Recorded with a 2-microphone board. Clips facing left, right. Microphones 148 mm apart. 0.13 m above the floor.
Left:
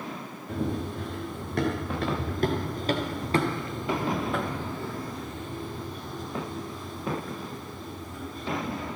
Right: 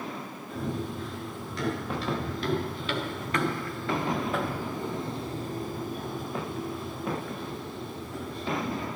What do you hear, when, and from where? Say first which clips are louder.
0.5 s running footsteps: left 3 dB; 65° left (ahead or behind), 6 m; by 8.9 s 75° right (ahead or behind), 7 m